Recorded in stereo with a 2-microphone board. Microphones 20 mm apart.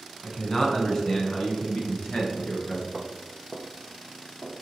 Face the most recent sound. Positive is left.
turn(degrees=80)